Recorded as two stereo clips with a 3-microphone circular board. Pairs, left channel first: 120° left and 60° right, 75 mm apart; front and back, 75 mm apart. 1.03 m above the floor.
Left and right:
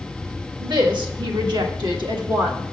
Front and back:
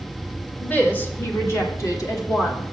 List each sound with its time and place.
0.6 s a woman speaking: 75° right, 1.4 m; by 2.6 s 40° right, 2 m